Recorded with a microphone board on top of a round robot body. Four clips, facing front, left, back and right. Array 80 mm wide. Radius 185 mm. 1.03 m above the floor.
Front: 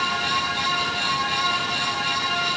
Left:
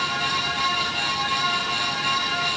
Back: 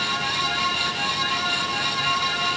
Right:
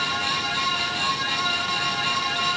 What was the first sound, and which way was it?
Only background noise.